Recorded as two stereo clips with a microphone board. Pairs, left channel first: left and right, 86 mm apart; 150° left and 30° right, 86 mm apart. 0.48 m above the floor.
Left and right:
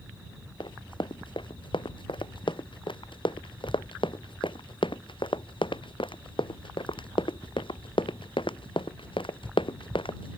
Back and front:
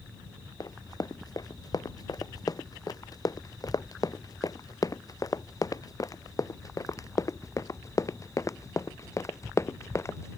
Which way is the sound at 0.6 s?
110° left.